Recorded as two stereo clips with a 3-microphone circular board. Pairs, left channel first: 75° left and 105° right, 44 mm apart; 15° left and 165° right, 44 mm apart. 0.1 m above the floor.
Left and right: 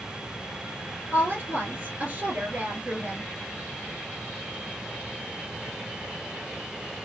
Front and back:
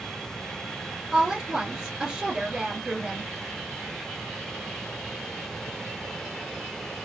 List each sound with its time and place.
1.1 s a woman speaking: 110° right, 1.9 m